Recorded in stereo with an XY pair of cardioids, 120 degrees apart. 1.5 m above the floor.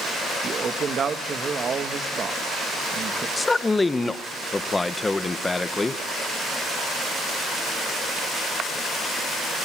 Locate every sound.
0.4 s a man speaking: 40° right, 1.7 m
3.4 s a man speaking: 15° left, 1.2 m